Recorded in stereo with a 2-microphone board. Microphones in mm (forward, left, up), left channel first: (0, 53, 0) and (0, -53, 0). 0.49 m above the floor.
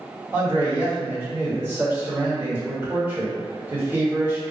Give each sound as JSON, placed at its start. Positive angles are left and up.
{"t": 0.3, "sound": "a man speaking", "side_deg": -25, "distance_m": 1.4}